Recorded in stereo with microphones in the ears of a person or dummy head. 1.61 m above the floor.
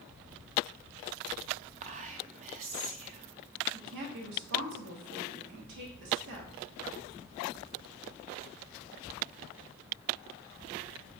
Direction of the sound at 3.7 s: 60° right (ahead or behind).